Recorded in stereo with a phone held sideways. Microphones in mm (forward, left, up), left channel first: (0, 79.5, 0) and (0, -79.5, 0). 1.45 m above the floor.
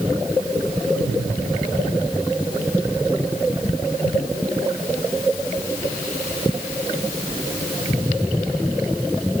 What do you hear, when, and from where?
Only background noise.